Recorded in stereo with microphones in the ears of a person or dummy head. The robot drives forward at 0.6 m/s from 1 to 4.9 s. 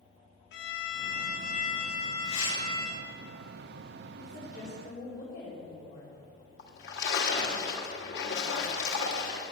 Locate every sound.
0.5 s a violin: 60° left (ahead or behind), 0.8 m; by 3.1 s 25° left (ahead or behind), 1.7 m
2.2 s tearing paper: 70° left (ahead or behind), 5 m
4.2 s a woman speaking: 55° left (ahead or behind), 3 m; by 6.1 s 50° left (ahead or behind), 3.5 m
6.6 s a splash: 60° left (ahead or behind), 1.4 m